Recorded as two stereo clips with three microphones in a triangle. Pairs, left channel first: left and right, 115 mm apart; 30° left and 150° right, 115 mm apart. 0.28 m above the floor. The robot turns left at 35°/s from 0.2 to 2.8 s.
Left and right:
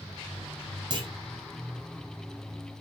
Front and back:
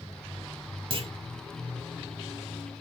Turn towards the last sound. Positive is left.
turn(degrees=170)